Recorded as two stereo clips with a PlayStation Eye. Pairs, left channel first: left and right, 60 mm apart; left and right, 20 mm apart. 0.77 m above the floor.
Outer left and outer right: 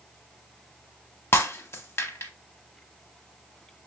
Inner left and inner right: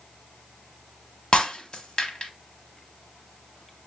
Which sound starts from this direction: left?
Breaking glass, at 1.3 s.